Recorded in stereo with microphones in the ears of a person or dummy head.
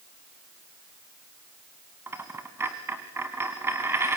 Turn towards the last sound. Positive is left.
turn(degrees=-5)  # may be behind; listen again after turning